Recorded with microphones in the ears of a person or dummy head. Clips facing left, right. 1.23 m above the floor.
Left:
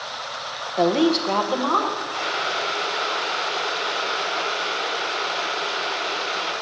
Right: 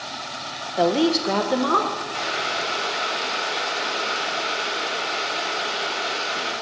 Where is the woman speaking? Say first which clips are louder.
Left 1 dB; centre (ahead or behind), 0.5 m; by 2.0 s 40° right (ahead or behind), 1.0 m.